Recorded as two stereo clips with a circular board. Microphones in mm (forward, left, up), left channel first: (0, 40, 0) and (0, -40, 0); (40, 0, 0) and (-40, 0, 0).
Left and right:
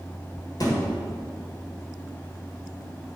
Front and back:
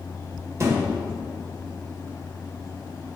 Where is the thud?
130° left, 1.9 m.